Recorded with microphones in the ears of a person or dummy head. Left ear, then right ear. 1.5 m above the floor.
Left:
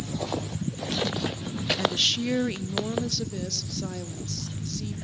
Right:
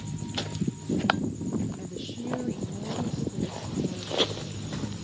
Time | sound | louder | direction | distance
1.8 | a woman speaking | left 15 dB | 60° left (ahead or behind) | 0.6 m